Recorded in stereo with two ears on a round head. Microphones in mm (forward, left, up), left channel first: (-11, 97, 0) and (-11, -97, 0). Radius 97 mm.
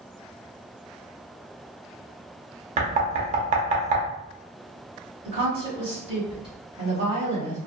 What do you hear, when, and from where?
2.8 s knocking: 35° right (ahead or behind), 0.6 m
5.2 s a woman speaking: 25° right (ahead or behind), 1.6 m